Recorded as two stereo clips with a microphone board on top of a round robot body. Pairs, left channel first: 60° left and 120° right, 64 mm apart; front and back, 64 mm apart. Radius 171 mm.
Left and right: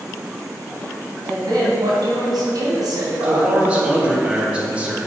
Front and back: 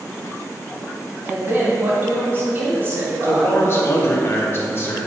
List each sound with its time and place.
1.2 s a woman speaking: 125° right, 3 m
3.2 s a man speaking: 50° right, 2.5 m